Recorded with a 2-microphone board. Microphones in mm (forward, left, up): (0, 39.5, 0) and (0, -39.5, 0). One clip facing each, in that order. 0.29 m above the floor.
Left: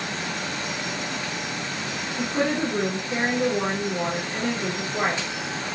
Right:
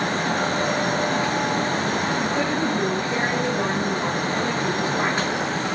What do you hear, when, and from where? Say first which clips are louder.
2.2 s a woman speaking: right 2 dB; 15° left (ahead or behind), 5.5 m